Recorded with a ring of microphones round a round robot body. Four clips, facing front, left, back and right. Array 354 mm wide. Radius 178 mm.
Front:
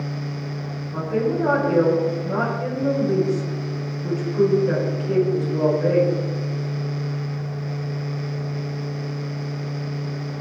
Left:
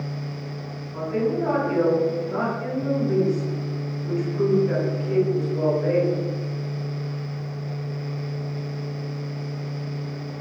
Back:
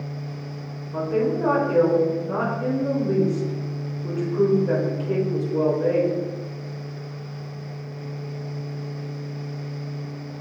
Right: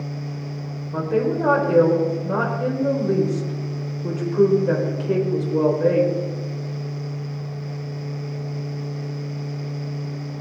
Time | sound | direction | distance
0.9 | a woman speaking | 90° right | 3.5 m